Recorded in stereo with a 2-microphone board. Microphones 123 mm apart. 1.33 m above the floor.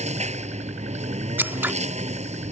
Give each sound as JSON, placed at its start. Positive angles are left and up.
{"t": 0.0, "sound": "a lawn mower", "side_deg": -65}
{"t": 1.4, "sound": "scissors", "side_deg": -15}